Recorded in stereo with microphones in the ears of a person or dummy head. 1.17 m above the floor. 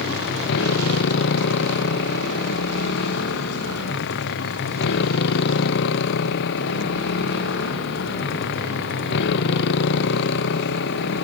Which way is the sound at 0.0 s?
60° left (ahead or behind).